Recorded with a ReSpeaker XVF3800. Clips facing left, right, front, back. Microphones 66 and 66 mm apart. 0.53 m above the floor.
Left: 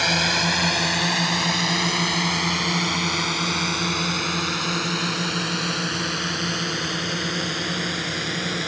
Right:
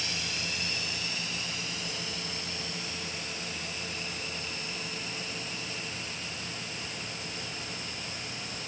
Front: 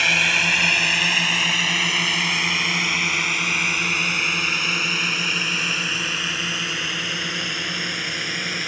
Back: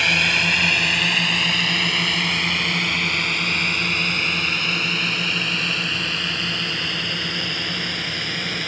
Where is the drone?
85° left; by 8.7 s 80° left.